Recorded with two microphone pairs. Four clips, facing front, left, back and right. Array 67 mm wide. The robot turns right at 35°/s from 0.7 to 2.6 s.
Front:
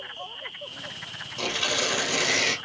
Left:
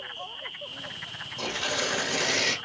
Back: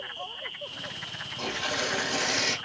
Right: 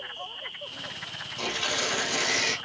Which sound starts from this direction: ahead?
Tearing paper, at 1.4 s.